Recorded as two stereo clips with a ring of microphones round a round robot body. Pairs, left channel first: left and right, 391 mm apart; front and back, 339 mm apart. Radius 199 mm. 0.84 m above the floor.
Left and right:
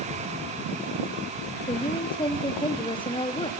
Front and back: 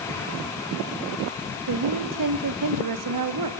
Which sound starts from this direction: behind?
A woman speaking, at 1.7 s.